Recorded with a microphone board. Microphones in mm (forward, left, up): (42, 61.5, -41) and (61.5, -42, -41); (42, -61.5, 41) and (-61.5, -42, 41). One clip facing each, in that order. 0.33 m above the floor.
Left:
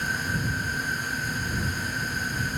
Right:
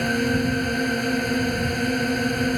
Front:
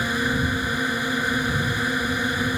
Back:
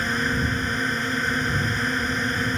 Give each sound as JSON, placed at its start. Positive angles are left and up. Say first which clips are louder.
{"t": 0.0, "sound": "a drone", "louder": "right 8 dB, front 1 dB", "azimuth_deg": -90}